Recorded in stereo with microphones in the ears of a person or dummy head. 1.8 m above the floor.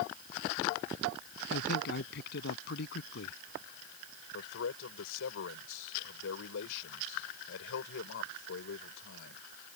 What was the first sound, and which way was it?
A man speaking, 60° left (ahead or behind).